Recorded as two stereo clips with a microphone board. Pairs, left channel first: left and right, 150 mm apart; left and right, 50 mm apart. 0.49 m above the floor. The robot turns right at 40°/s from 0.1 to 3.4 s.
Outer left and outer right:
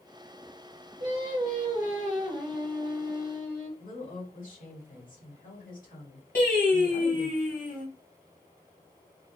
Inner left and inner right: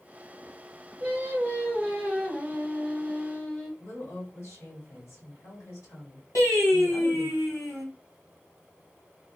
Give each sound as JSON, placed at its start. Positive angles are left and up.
{"t": 1.0, "sound": "singing", "azimuth_deg": -60, "distance_m": 1.8}
{"t": 3.8, "sound": "a woman speaking", "side_deg": 60, "distance_m": 1.8}
{"t": 6.3, "sound": "singing", "side_deg": 75, "distance_m": 1.8}